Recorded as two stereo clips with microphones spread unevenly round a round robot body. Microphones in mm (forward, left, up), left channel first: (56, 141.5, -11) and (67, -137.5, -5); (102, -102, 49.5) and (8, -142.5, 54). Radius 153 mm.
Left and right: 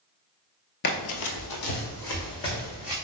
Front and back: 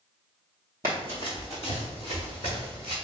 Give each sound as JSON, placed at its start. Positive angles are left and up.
{"t": 0.8, "sound": "running footsteps", "azimuth_deg": 135, "distance_m": 0.6}